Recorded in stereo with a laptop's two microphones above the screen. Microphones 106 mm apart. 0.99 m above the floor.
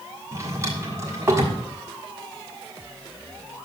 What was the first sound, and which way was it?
A drawer, 30° right (ahead or behind).